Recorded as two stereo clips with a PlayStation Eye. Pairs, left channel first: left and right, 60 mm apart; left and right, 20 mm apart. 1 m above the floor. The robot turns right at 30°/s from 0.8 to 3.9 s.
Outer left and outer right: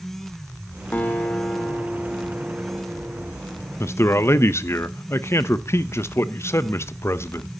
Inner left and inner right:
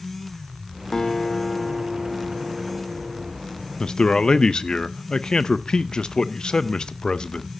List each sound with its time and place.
0.9 s a guitar: 145° left, 1.0 m; by 3.3 s 145° right, 1.0 m
3.8 s a man speaking: 50° left (ahead or behind), 0.6 m; by 7.5 s 45° left (ahead or behind), 0.6 m